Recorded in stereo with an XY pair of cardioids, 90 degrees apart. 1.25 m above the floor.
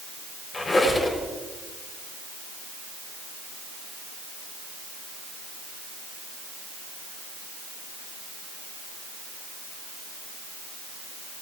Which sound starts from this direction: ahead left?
A squeak, at 0.5 s.